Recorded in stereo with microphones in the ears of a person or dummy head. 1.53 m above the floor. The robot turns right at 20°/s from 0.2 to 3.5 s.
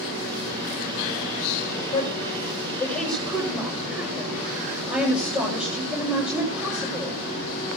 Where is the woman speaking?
155° left, 8 m; by 7.2 s 170° right, 8 m.